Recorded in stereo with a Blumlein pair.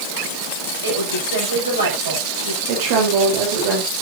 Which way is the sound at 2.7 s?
50° right.